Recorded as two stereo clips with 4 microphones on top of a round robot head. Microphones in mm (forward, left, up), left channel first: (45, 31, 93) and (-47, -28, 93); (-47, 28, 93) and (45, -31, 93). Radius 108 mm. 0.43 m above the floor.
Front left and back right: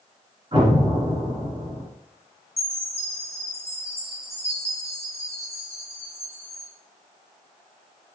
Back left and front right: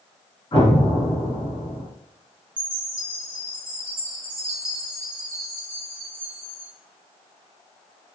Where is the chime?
20° left, 2 m.